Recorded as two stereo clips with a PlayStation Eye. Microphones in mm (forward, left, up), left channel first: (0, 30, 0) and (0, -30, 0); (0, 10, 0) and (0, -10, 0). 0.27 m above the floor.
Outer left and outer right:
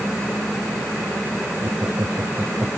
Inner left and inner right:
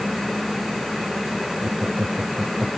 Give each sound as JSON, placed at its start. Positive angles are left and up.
{"t": 1.6, "sound": "laughter", "side_deg": -50}